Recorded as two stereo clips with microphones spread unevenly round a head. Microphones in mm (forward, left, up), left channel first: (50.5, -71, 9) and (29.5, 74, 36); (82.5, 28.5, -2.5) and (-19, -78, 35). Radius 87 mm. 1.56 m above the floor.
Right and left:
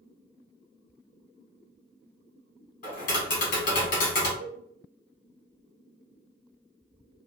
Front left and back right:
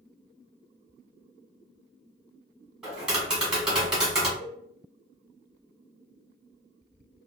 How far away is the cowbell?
About 1.3 m.